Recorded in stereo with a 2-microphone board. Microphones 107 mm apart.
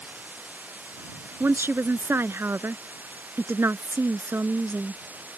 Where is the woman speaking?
20° right (ahead or behind).